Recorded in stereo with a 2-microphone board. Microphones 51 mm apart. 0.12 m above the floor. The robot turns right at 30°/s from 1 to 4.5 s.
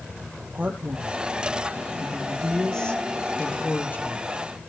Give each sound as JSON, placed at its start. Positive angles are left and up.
{"t": 0.5, "sound": "a man speaking", "azimuth_deg": -35, "distance_m": 3.5}